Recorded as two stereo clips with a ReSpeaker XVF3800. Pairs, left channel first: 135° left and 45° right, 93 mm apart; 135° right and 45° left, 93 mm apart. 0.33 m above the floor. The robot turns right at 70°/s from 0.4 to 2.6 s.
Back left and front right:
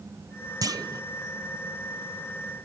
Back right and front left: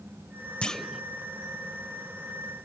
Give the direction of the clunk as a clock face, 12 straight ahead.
2 o'clock.